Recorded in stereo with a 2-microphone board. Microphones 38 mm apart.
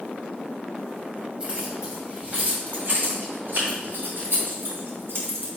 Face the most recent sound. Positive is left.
turn(degrees=-75)  # may be behind; listen again after turning